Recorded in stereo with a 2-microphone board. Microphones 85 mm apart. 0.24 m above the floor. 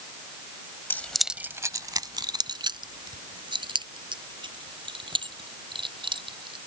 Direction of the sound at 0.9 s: 25° left (ahead or behind).